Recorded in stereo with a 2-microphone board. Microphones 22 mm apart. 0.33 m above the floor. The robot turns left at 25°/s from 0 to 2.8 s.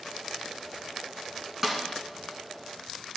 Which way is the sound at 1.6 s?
15° right (ahead or behind).